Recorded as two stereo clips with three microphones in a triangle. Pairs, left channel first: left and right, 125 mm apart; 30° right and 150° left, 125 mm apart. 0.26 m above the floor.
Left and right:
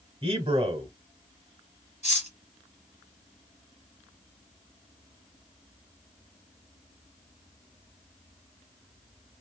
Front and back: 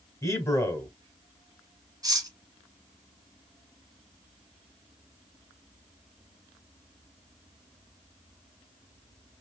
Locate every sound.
0.2 s a man speaking: 80° right, 1.5 m
2.0 s cutlery clinking: 95° left, 1.4 m